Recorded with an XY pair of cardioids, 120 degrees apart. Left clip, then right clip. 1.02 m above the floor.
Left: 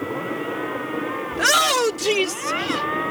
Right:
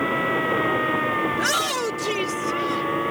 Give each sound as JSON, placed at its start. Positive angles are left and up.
{"t": 1.3, "sound": "a shout", "azimuth_deg": 35}